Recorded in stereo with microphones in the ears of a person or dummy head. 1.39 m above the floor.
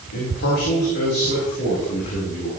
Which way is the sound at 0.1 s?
65° left (ahead or behind).